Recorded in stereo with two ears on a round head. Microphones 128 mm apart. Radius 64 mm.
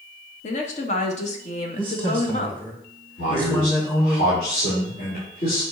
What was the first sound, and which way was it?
A woman speaking, 50° left (ahead or behind).